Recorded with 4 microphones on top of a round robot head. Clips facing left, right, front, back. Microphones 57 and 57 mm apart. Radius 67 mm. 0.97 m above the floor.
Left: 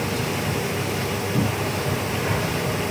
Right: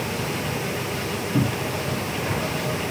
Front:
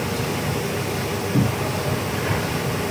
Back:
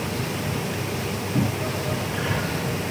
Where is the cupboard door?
30° right, 6 m.